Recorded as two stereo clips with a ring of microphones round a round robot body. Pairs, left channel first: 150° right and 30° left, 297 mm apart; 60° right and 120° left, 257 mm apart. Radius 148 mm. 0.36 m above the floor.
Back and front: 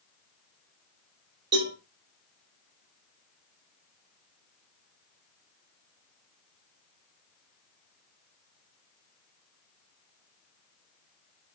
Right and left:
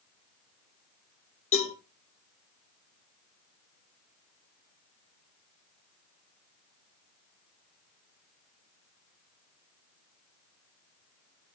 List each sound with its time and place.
1.5 s a cowbell: 25° right, 7 m